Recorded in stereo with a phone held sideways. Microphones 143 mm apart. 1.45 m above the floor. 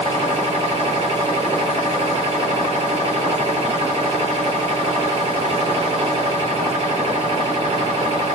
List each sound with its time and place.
0.0 s a machine running: 40° right (ahead or behind), 1.5 m